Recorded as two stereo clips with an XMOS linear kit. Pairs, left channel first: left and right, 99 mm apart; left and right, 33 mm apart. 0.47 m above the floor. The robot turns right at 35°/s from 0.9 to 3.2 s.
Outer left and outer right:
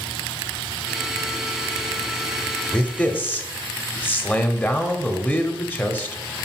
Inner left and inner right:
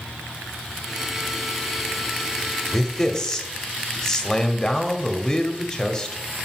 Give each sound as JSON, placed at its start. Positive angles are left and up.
{"t": 2.7, "sound": "a man speaking", "side_deg": 10, "distance_m": 1.0}